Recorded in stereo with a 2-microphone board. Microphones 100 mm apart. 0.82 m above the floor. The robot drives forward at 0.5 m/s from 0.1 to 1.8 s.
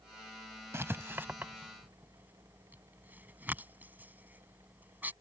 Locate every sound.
0.7 s writing: 25° right (ahead or behind); by 5.1 s 15° right (ahead or behind)